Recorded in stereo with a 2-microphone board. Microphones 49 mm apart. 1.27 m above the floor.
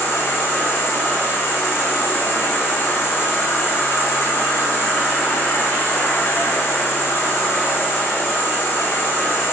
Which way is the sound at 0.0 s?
45° left (ahead or behind).